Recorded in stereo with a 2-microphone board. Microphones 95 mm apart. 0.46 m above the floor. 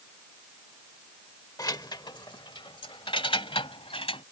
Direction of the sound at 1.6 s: 40° left (ahead or behind).